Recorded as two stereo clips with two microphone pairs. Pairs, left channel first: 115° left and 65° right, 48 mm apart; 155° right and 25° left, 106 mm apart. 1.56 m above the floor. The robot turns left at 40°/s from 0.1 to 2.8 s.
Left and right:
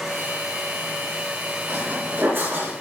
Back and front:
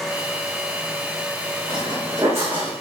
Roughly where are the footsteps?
Ahead.